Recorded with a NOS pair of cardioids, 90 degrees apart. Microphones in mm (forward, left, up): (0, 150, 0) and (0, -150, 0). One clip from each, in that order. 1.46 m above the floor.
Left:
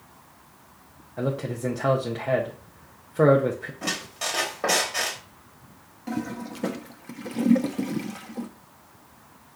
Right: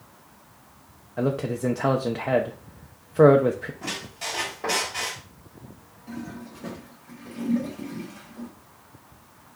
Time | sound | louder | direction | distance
1.2 | a man speaking | right 3 dB | 15° right | 0.5 m
3.8 | a squeak | left 5 dB | 40° left | 1.2 m
6.1 | a toilet flushing | left 6 dB | 60° left | 0.7 m